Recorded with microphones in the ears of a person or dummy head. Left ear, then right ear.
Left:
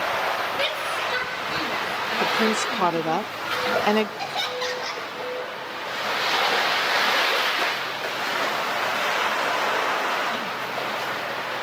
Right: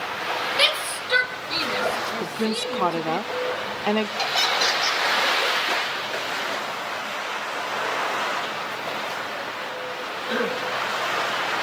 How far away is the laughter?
About 9 m.